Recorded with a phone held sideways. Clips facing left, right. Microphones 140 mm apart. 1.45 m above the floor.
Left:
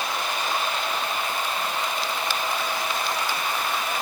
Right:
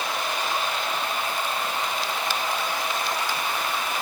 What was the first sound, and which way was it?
Only background noise.